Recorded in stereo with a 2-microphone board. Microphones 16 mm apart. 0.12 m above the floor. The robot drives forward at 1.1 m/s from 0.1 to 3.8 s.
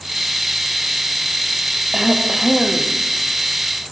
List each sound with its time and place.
1.9 s throat clearing: 40° right (ahead or behind), 4.5 m; by 2.9 s 30° right (ahead or behind), 5.5 m